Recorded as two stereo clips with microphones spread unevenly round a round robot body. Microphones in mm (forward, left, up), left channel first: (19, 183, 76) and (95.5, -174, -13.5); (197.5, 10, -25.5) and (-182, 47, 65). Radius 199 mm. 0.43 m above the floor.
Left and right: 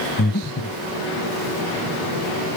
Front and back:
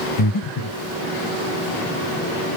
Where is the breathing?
45° left, 0.6 m.